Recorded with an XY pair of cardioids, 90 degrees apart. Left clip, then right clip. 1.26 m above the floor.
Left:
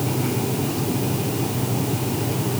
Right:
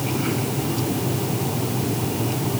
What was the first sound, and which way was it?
Only background noise.